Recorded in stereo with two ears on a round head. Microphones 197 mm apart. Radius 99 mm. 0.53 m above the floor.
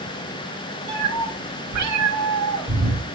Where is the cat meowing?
70° right (ahead or behind), 1.6 m; by 3.0 s 65° right (ahead or behind), 1.1 m.